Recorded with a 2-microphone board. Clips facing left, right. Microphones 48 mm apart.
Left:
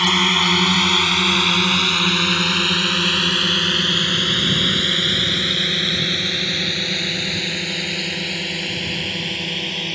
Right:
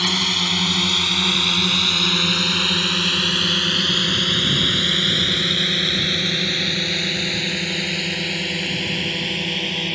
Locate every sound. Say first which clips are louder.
0.0 s a drone: left 5 dB; 40° left (ahead or behind); by 9.9 s 5° right (ahead or behind)